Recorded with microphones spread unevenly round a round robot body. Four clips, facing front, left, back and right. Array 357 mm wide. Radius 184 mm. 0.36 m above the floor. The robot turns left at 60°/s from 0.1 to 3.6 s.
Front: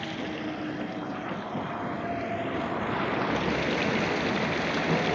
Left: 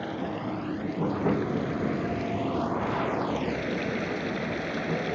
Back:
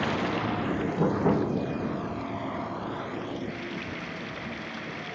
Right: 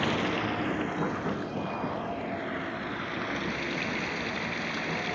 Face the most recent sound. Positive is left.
turn(degrees=15)